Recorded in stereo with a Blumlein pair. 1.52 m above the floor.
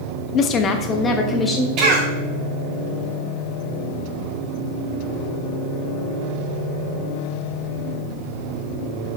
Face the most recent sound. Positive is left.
turn(degrees=-40)